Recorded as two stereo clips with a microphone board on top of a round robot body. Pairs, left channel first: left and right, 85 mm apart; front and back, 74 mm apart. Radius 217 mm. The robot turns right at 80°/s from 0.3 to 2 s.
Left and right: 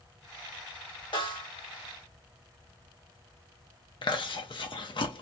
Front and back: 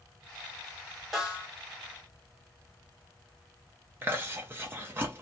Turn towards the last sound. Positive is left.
turn(degrees=115)